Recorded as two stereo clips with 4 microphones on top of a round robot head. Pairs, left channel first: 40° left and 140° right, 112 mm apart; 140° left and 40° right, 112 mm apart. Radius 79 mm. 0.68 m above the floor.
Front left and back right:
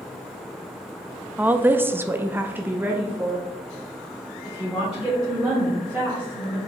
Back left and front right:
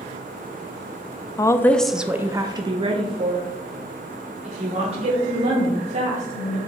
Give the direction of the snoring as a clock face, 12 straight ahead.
No snoring in this recording.